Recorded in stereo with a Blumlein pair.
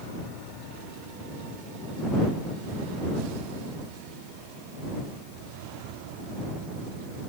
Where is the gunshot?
No gunshot in this recording.